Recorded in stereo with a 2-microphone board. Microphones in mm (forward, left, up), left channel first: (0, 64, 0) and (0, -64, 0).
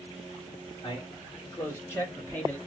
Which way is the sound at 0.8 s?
30° left (ahead or behind).